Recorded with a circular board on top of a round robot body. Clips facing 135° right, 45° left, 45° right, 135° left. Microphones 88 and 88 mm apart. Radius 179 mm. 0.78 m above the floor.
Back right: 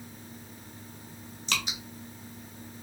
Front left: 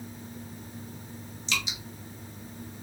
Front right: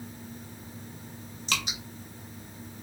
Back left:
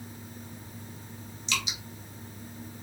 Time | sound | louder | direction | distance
1.5 | dripping | even, front right 1 dB | 90° right | 0.8 m